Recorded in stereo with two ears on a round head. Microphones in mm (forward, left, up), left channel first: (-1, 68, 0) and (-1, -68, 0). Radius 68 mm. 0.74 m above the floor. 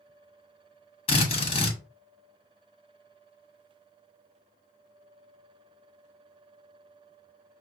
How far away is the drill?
About 1.3 m.